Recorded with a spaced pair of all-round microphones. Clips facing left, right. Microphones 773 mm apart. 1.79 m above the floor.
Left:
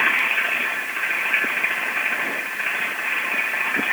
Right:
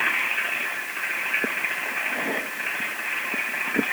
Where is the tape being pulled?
I don't hear tape being pulled.